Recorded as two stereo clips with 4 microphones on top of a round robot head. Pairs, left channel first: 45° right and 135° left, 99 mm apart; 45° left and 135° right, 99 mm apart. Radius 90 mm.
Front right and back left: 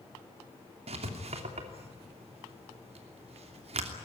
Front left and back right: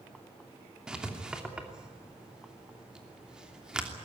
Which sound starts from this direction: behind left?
Writing, at 0.9 s.